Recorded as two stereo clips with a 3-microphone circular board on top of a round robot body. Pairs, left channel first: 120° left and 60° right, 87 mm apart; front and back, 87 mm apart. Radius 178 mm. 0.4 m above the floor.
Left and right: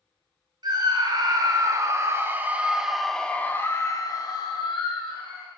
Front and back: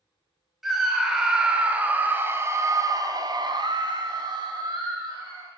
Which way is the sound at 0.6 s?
95° right.